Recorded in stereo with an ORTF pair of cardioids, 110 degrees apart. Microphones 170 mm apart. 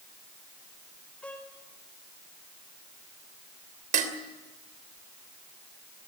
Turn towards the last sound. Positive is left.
turn(degrees=-50)